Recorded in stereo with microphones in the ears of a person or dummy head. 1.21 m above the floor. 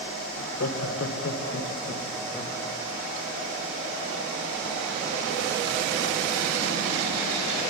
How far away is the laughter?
About 1.2 m.